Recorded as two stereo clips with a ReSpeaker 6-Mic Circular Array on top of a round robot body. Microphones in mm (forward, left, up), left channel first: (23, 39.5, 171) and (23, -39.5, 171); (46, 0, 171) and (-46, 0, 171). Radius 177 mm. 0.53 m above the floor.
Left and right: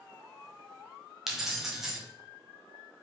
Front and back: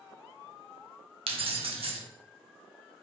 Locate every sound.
1.3 s keys jangling: 175° right, 0.8 m